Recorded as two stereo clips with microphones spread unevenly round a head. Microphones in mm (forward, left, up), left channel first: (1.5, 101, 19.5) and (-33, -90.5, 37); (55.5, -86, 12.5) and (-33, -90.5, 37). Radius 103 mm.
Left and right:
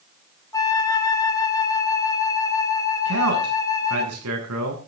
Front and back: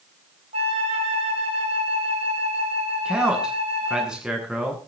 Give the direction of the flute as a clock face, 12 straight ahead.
7 o'clock.